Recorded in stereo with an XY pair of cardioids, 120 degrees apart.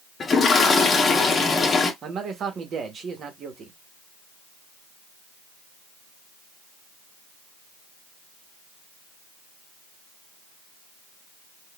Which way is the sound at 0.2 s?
30° left.